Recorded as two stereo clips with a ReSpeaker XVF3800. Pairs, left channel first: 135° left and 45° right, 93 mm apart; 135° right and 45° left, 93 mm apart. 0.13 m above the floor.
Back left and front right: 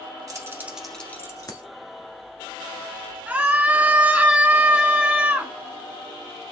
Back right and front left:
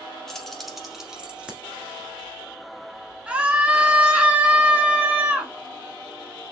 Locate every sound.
0.3 s keys jangling: 50° right, 1.1 m; by 1.6 s 120° left, 1.3 m
3.3 s a scream: 5° right, 1.0 m